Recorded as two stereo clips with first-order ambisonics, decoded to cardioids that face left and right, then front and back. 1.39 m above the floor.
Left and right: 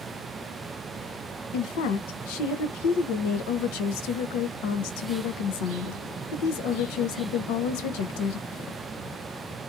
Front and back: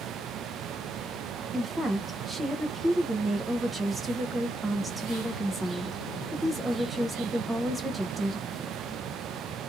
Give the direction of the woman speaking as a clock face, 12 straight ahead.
9 o'clock.